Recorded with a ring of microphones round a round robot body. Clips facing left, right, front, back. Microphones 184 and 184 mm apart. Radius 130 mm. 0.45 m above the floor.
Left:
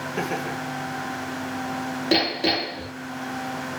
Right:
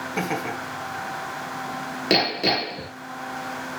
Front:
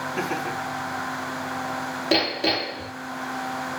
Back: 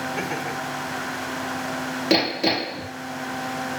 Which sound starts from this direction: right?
Laughter, at 0.2 s.